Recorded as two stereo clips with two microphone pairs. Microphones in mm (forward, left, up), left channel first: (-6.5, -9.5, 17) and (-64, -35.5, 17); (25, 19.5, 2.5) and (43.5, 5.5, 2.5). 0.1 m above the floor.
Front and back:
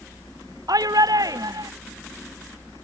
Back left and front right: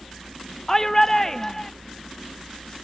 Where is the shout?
145° right.